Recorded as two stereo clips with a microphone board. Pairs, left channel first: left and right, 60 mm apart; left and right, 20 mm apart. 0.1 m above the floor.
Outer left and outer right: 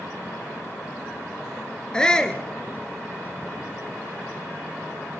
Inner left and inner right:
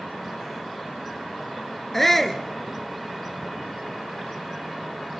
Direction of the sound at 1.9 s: 15° left (ahead or behind).